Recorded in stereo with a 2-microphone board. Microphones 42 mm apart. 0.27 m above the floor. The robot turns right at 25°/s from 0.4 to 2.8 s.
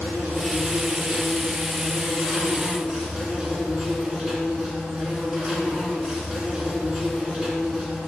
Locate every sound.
0.0 s an insect: 70° right, 1.9 m; by 8.1 s 10° right, 1.9 m